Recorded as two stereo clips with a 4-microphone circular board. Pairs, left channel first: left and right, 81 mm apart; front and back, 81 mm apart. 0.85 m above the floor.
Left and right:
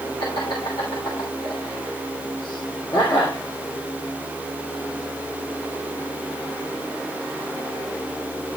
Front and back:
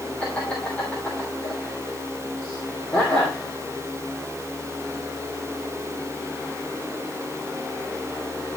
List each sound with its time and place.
0.2 s laughter: 75° left, 2.5 m